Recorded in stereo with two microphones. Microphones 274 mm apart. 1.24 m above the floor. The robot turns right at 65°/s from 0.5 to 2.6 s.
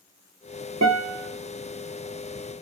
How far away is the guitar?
About 0.9 m.